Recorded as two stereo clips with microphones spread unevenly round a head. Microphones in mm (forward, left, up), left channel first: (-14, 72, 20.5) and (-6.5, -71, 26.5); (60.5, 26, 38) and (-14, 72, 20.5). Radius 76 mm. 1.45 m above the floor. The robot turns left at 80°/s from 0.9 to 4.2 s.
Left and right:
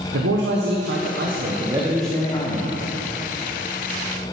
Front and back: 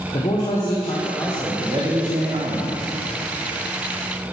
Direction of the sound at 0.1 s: 90° right.